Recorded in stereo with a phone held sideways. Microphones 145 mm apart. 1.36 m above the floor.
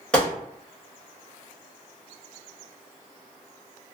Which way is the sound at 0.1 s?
5° left (ahead or behind).